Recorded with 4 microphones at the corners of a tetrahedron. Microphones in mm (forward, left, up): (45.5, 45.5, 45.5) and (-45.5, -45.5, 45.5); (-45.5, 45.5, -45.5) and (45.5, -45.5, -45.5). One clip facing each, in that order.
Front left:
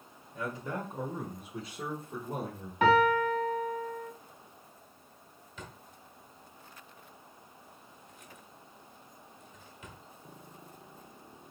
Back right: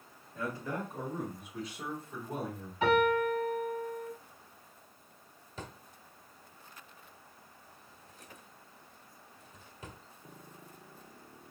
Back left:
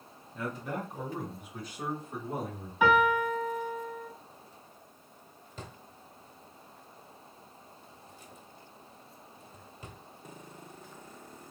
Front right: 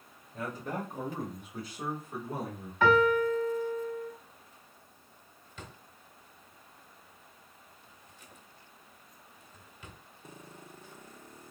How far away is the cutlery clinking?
No cutlery clinking in this recording.